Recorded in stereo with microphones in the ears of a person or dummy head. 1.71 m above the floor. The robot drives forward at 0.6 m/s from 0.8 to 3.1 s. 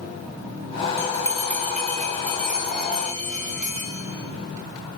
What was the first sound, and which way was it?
A bell, 15° left (ahead or behind).